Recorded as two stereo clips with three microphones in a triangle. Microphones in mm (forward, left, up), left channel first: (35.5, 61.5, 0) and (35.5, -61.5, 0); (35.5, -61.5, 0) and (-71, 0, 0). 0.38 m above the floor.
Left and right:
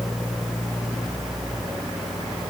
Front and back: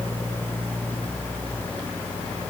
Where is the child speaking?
I don't hear a child speaking.